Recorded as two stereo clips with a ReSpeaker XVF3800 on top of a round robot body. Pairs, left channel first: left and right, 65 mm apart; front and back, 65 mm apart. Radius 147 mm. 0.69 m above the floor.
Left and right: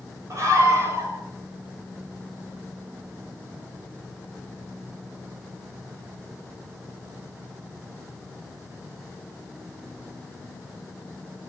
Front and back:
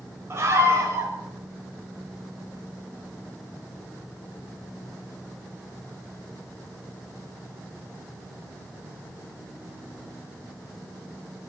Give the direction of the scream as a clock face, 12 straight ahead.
4 o'clock.